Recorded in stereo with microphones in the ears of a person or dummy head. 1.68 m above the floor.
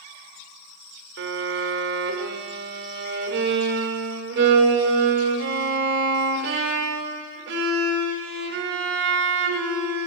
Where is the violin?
65° right (ahead or behind), 0.8 m.